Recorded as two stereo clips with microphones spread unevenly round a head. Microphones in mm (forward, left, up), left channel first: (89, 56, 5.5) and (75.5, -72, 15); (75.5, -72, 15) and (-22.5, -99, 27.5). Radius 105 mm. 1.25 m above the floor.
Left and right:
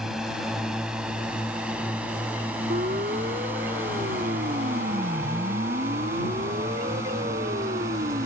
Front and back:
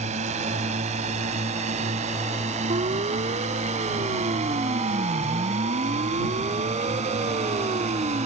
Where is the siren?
150° right; by 8.3 s 145° right.